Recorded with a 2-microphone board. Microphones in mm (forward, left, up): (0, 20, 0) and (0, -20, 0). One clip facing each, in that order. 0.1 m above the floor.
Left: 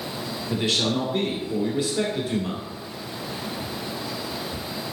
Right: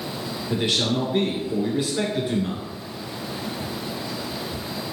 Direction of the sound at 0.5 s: 15° right (ahead or behind).